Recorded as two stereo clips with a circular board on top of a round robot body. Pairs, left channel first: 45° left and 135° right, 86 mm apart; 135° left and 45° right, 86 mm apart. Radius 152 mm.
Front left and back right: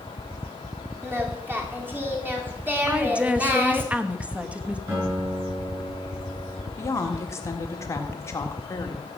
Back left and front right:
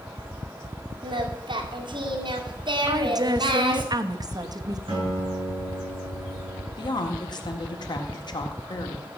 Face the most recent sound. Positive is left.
turn(degrees=100)